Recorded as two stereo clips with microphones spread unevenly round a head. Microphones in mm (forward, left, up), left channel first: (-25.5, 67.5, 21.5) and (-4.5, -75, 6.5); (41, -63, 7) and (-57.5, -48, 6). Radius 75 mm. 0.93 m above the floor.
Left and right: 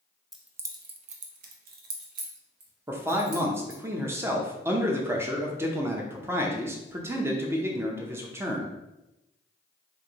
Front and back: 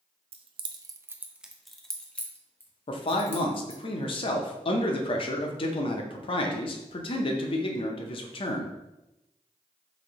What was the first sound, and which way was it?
Keys jangling, 170° right.